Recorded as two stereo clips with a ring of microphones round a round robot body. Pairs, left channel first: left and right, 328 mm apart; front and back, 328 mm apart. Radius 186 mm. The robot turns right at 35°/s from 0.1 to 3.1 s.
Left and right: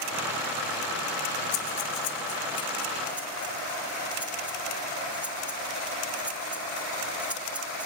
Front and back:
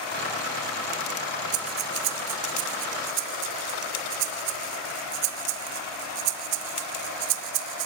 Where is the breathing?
130° left, 0.5 m; by 7.9 s 175° right, 0.5 m.